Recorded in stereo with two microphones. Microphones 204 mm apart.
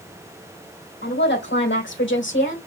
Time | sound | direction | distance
1.0 | a woman speaking | 60° left (ahead or behind) | 3.5 m